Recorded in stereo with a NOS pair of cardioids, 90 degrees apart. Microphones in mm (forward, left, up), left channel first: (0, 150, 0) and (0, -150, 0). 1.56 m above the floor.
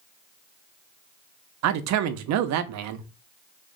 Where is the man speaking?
65° right, 0.5 m.